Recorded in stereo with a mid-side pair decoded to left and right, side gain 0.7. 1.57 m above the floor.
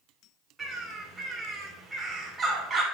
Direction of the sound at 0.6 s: 20° right.